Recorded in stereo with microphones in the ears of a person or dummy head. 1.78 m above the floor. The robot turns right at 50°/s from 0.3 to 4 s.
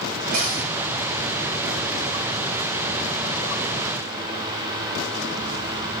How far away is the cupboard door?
About 4 m.